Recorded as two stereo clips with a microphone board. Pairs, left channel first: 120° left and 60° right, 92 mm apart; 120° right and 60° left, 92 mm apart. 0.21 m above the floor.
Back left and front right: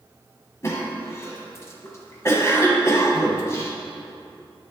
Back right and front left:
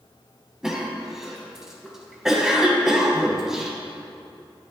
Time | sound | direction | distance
0.6 | a cough | 140° left | 1.1 m